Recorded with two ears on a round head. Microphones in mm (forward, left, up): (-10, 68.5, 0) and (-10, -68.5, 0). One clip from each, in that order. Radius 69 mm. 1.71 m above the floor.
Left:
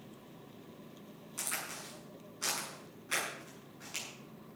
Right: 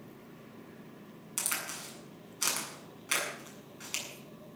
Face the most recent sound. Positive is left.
turn(degrees=-55)  # may be behind; listen again after turning